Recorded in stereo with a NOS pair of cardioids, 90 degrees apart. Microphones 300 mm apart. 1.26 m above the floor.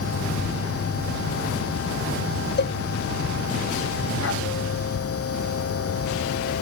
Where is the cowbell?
35° left.